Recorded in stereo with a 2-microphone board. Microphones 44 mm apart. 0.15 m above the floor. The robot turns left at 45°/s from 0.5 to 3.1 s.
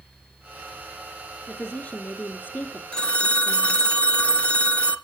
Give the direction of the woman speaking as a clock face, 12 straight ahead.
6 o'clock.